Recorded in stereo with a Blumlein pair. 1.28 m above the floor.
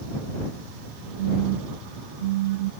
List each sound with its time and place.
1.2 s a phone buzzing: 55° right